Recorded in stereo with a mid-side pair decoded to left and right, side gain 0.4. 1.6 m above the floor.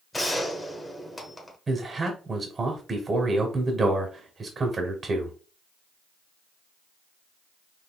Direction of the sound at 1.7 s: 40° right.